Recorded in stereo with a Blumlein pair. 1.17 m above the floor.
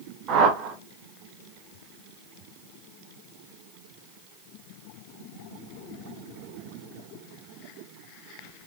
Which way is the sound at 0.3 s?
30° right.